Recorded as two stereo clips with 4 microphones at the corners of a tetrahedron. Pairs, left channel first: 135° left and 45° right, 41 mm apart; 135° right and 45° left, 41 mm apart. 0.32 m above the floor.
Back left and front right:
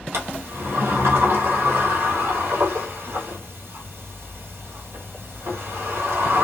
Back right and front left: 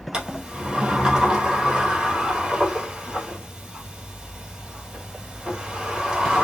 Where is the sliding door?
30° right, 1.8 m.